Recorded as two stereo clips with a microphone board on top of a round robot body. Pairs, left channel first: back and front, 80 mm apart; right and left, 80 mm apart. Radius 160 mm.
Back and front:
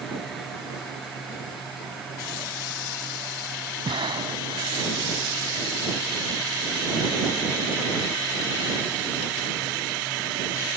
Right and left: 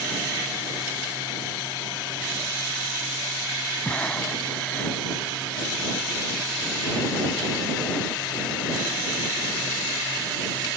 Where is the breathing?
15° right.